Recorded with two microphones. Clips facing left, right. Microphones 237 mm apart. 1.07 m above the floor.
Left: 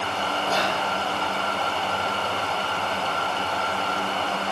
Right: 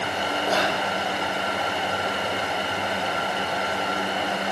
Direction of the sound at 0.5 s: 60° right (ahead or behind).